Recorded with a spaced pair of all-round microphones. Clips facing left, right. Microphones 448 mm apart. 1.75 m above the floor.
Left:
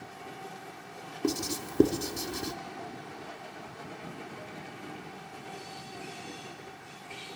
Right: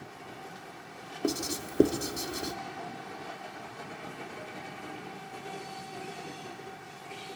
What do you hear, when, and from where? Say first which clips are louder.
1.2 s writing: left 1 dB; 10° left (ahead or behind), 1.3 m